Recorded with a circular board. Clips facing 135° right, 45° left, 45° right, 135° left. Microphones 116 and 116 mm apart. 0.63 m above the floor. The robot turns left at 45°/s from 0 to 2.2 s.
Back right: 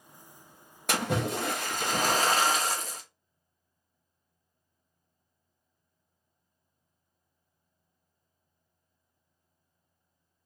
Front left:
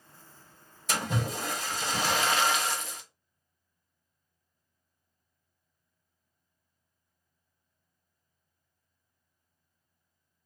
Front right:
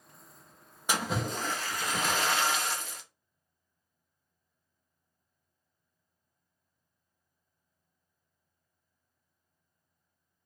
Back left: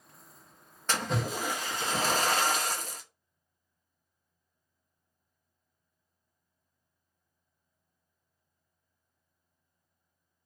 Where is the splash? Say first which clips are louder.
Back right 3 dB, even; 120° right, 0.5 m; by 3.0 s straight behind, 0.5 m.